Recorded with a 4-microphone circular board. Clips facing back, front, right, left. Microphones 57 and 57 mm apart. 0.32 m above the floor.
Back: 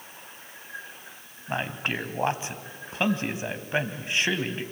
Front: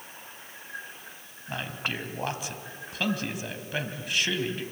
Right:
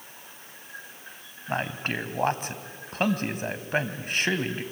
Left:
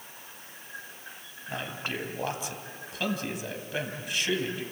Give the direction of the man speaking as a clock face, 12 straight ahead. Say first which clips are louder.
Back 4 dB, right 5 dB; 4 o'clock.